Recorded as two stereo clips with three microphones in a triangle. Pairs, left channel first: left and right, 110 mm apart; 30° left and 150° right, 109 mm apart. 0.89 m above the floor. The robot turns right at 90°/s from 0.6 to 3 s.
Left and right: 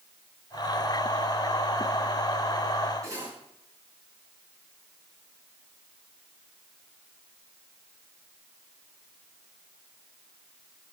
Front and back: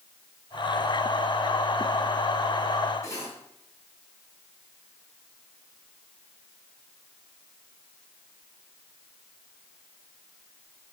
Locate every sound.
3.0 s cutlery clinking: 30° right, 4 m